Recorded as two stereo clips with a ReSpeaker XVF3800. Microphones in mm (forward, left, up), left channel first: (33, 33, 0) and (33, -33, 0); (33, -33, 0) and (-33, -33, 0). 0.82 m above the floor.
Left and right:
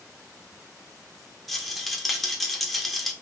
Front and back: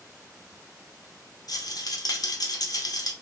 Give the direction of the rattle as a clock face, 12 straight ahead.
12 o'clock.